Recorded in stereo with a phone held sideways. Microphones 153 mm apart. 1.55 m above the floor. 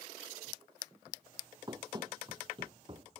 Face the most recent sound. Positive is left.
turn(degrees=-35)  # may be behind; listen again after turning